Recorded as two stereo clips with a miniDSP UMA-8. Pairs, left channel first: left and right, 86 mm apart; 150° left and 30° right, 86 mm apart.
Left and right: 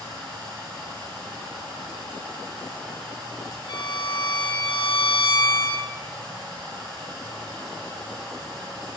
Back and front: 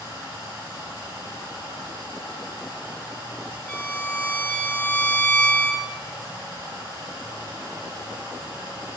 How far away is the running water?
About 5.5 m.